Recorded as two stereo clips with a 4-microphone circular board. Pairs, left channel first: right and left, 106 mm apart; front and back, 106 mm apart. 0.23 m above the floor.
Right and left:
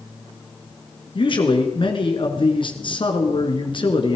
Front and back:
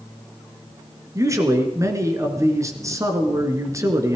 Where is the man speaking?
120° right, 2.5 m.